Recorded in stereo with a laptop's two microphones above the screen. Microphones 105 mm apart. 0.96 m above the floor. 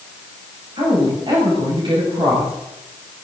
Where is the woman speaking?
50° right (ahead or behind), 5 m.